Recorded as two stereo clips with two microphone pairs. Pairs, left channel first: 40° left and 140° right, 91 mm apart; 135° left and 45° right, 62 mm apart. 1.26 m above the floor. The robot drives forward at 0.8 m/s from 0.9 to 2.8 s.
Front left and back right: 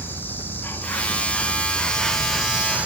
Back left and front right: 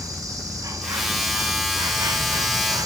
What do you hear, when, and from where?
0.0 s an insect: 25° right, 2 m; by 2.9 s 65° right, 1.1 m